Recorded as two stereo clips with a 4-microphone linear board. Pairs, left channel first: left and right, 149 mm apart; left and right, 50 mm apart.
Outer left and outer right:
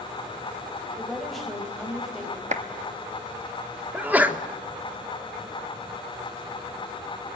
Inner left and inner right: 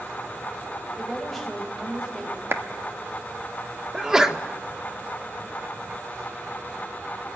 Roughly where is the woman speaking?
Centre.